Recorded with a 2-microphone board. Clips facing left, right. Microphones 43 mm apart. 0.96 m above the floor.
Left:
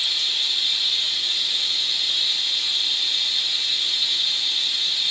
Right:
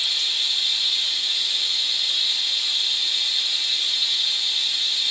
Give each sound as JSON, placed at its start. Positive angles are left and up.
{"t": 0.0, "sound": "running water", "side_deg": 5, "distance_m": 1.2}